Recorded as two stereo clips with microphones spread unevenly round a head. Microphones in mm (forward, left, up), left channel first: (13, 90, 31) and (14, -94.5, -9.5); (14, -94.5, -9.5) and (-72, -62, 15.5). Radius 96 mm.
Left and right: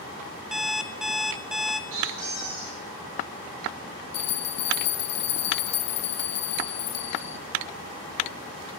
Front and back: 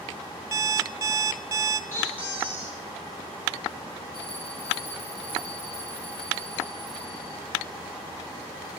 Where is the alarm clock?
175° left, 0.6 m.